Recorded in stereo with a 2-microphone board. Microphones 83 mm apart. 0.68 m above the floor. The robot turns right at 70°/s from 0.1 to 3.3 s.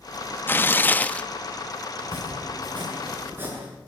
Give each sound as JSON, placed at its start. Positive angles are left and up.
{"t": 0.5, "sound": "tearing paper", "side_deg": 25, "distance_m": 0.6}
{"t": 2.0, "sound": "chopping", "azimuth_deg": -115, "distance_m": 10.0}